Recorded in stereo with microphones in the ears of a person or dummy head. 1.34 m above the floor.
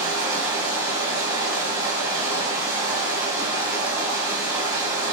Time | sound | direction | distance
0.0 | running water | 20° right (ahead or behind) | 1.3 m